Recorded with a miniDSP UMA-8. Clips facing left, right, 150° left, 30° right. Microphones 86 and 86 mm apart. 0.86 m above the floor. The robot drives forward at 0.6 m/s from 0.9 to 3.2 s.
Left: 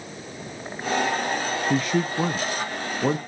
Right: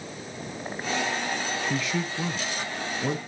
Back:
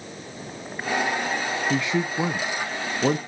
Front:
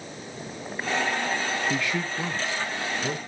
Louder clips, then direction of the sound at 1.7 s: Left 6 dB, back 4 dB; 80° left.